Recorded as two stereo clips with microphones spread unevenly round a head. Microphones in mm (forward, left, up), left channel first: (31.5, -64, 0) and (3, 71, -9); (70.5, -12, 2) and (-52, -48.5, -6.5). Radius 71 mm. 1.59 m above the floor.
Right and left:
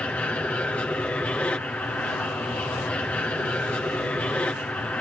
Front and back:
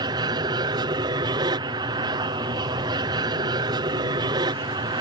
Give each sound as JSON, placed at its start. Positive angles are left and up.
{"t": 0.0, "sound": "an aircraft", "azimuth_deg": -155}